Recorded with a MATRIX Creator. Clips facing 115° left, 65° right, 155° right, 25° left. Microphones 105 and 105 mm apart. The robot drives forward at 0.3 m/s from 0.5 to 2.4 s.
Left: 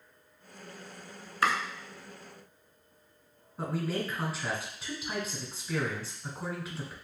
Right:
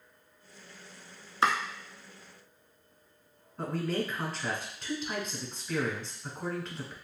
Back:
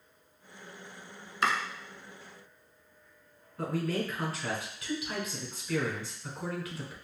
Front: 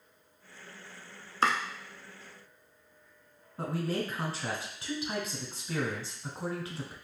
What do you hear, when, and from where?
1.4 s chopping: 15° right, 0.7 m
3.6 s a man speaking: 35° left, 1.1 m